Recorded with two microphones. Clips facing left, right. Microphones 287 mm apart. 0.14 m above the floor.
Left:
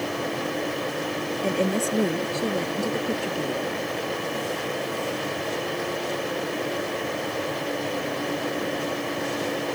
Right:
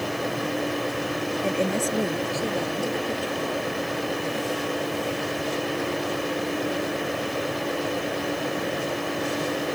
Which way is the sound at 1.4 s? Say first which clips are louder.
Left 2 dB; 15° left (ahead or behind).